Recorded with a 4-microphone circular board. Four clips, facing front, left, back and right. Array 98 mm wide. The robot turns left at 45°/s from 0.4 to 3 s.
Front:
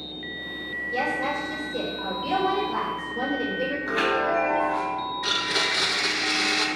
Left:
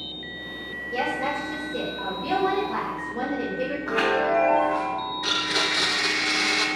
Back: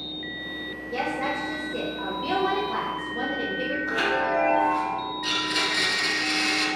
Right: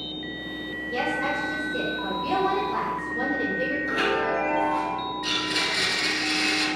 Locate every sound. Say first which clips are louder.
0.9 s a woman speaking: even, front 1 dB; 150° right, 1.7 m; by 3.8 s 115° left, 1.7 m
3.9 s a chime: left 4 dB, front 1 dB; 70° left, 1.0 m
5.2 s a blender: left 2 dB, front 1 dB; 45° left, 0.6 m